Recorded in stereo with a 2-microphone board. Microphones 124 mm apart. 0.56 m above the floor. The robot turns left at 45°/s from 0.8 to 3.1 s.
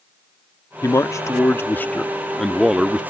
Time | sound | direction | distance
0.8 | a man speaking | 25° left (ahead or behind) | ?